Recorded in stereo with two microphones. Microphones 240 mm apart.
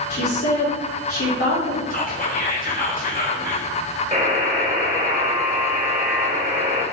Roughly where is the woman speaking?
Left.